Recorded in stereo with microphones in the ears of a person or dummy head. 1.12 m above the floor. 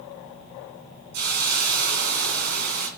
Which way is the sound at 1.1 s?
55° right (ahead or behind).